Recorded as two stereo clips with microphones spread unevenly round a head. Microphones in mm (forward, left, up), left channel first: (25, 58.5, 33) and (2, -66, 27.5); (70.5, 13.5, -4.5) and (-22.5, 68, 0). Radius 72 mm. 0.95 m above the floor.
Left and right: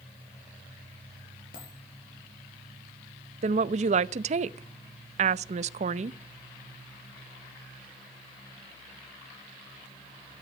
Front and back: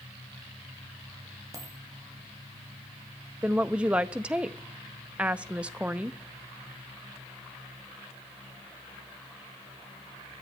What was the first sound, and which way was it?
A dropped coin, 95° left.